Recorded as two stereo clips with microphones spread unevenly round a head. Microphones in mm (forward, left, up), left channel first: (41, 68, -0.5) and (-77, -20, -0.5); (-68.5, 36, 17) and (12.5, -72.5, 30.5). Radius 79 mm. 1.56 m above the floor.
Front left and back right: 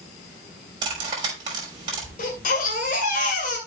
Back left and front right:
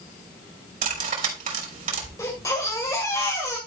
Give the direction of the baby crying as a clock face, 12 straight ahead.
10 o'clock.